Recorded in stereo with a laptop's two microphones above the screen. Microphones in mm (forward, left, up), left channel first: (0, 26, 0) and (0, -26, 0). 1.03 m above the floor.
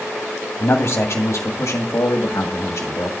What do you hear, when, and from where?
0.6 s a man speaking: 55° left (ahead or behind), 2 m; by 3.1 s 65° left (ahead or behind), 2.0 m